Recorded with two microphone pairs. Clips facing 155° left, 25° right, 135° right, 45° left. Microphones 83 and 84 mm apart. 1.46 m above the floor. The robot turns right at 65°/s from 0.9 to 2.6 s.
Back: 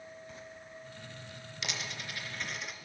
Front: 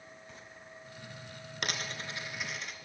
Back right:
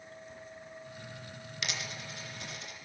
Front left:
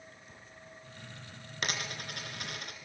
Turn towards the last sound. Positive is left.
turn(degrees=65)